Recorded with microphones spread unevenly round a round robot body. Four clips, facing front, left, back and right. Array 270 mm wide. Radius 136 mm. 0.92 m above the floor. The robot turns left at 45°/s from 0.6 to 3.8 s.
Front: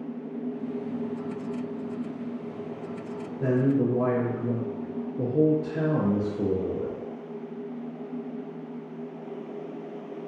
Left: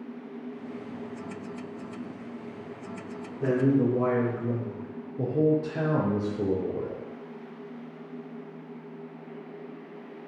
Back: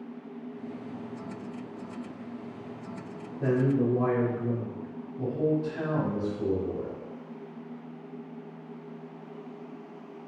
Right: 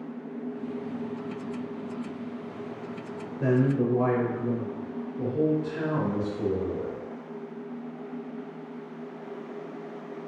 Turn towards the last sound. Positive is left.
turn(degrees=40)